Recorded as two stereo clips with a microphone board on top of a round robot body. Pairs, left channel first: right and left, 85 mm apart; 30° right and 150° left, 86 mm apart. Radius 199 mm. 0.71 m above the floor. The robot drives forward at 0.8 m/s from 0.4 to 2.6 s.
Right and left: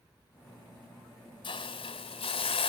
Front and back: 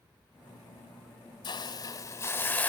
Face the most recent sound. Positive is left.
turn(degrees=-100)